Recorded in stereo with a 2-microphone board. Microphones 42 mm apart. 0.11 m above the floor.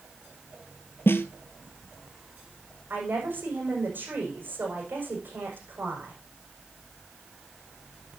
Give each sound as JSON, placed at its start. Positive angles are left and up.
{"t": 1.1, "sound": "a snare drum", "side_deg": 60, "distance_m": 1.0}
{"t": 2.9, "sound": "a woman speaking", "side_deg": -45, "distance_m": 6.5}